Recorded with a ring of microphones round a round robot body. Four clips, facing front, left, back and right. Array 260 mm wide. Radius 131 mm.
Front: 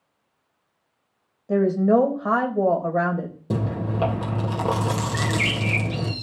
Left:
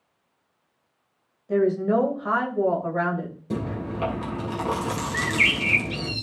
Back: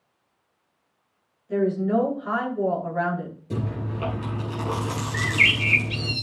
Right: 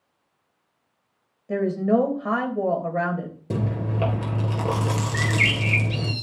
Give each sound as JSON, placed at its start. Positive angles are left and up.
{"t": 1.5, "sound": "a woman speaking", "azimuth_deg": -20, "distance_m": 3.0}
{"t": 3.5, "sound": "chewing", "azimuth_deg": -30, "distance_m": 3.0}
{"t": 5.1, "sound": "a bird", "azimuth_deg": 180, "distance_m": 2.5}